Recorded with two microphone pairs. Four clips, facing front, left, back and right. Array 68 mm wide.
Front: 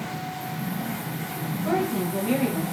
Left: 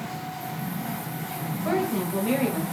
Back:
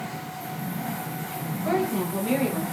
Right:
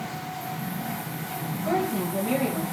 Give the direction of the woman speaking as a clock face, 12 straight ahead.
8 o'clock.